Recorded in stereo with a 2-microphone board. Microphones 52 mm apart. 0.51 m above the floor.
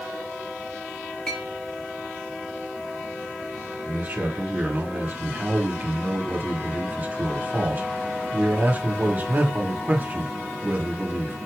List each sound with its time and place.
1.3 s a clink: 20° left (ahead or behind), 3.5 m
3.9 s a man speaking: 35° right (ahead or behind), 1.7 m